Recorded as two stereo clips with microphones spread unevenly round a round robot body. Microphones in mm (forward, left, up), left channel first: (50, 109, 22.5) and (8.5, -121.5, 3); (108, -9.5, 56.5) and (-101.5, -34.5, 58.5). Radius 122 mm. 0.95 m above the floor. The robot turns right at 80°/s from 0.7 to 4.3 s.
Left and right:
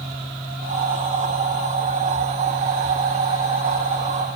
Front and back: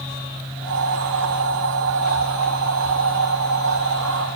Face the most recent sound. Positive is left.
No sound to turn to.